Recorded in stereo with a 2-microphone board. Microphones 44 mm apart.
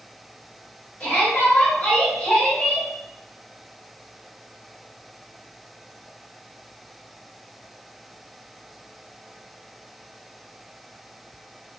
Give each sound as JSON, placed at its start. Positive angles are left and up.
{"t": 1.0, "sound": "a shout", "side_deg": 35, "distance_m": 1.6}